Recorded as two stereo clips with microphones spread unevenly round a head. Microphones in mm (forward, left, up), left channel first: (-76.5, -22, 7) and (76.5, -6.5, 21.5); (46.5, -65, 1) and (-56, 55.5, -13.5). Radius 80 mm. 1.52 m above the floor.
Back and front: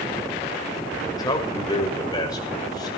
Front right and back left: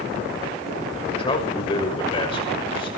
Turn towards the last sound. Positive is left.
turn(degrees=-110)